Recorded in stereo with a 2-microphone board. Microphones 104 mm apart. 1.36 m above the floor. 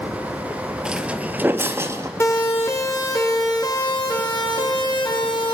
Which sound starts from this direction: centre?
Footsteps, at 0.8 s.